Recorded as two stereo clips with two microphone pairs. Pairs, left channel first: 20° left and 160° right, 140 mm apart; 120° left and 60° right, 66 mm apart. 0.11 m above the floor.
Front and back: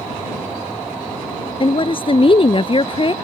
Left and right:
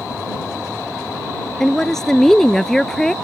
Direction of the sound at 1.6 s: 35° left.